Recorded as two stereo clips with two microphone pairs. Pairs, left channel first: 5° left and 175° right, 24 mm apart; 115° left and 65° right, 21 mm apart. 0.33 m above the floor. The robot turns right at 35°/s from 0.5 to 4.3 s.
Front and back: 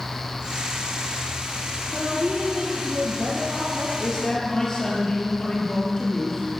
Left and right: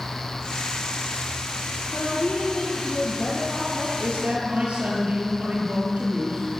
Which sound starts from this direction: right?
A man speaking, at 4.0 s.